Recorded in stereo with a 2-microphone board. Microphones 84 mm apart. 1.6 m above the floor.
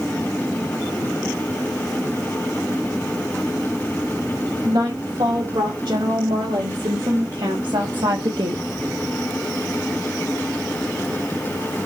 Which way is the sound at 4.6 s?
80° right.